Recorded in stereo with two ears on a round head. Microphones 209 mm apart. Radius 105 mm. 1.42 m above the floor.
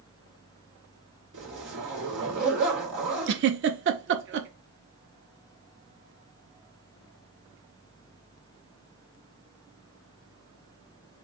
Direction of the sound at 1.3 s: 55° right (ahead or behind).